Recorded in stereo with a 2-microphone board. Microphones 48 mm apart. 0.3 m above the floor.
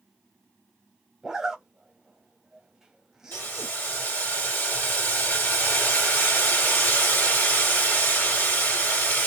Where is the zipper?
10° right (ahead or behind), 0.8 m.